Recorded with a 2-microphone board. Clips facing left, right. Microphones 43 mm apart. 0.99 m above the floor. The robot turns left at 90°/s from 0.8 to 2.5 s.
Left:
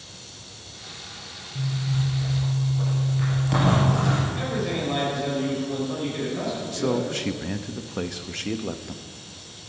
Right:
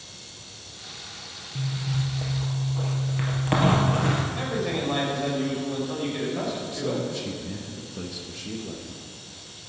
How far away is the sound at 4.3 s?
About 5.5 m.